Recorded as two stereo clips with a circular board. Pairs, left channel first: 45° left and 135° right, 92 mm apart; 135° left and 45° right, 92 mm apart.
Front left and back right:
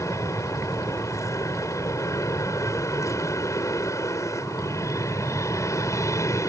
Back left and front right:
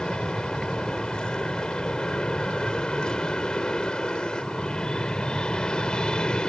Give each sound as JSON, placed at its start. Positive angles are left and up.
{"t": 0.0, "sound": "an aircraft", "azimuth_deg": 60}